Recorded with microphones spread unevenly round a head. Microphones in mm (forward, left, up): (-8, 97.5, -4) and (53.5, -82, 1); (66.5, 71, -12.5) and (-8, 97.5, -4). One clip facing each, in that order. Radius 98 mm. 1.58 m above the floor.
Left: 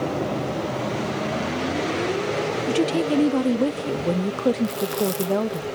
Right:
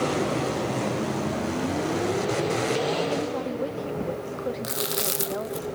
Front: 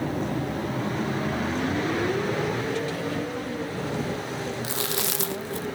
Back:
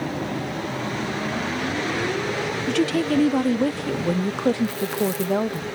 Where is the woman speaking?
145° left.